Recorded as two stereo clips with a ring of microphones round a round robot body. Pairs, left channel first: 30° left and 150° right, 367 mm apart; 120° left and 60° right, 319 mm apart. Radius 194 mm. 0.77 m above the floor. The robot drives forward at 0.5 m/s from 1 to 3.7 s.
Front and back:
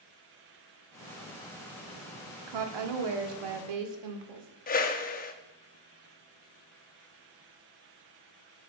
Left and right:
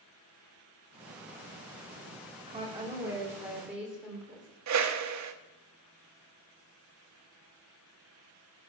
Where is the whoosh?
35° right, 0.9 m.